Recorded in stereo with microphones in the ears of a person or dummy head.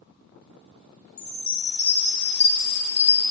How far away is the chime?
About 0.5 m.